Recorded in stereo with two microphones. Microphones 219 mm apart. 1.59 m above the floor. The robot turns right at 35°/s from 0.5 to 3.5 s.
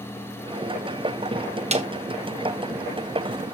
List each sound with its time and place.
1.7 s a snare drum: 30° right (ahead or behind), 1.4 m; by 1.9 s 35° right (ahead or behind), 1.4 m